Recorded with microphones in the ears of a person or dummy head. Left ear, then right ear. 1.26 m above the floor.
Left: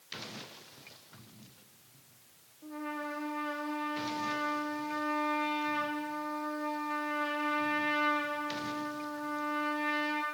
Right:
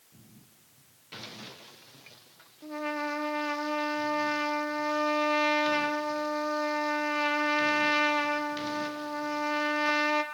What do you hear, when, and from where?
2.6 s a trumpet: 80° right, 0.6 m